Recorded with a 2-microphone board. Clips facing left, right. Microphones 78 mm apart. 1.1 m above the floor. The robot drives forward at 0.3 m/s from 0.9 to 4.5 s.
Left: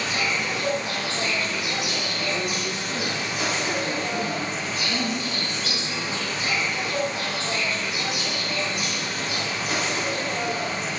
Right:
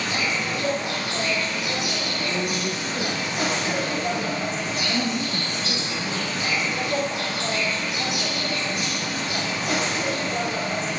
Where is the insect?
55° right (ahead or behind), 3 m; by 11.0 s 70° right (ahead or behind), 2.5 m.